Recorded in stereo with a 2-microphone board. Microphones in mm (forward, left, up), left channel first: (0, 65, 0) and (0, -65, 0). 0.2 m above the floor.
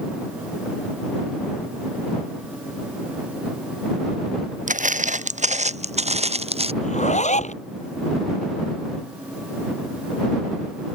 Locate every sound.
4.7 s footsteps: 85° right; by 6.7 s 50° right (ahead or behind)
6.8 s a zipper: 65° left (ahead or behind)